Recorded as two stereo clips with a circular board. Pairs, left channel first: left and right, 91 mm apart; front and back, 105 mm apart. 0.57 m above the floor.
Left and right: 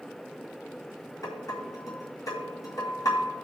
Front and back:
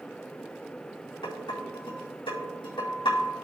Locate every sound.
1.2 s dishes clattering: 40° left, 3 m